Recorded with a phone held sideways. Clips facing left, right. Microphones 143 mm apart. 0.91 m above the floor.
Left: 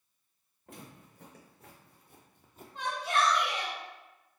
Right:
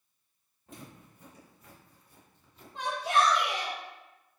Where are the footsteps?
70° left (ahead or behind), 3 m; by 2.6 s 45° left (ahead or behind), 1.2 m.